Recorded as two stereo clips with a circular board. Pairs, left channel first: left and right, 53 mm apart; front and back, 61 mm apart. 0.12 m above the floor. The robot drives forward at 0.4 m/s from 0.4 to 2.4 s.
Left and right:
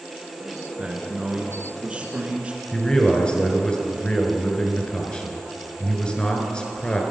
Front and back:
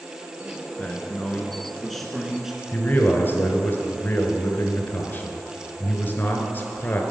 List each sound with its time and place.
0.8 s a man speaking: 45° right, 1.4 m; by 2.6 s 100° right, 1.3 m
2.7 s a man speaking: 30° left, 1.5 m